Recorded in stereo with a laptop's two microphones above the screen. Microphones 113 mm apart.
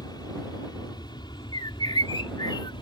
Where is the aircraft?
40° left (ahead or behind); by 2.8 s 45° left (ahead or behind).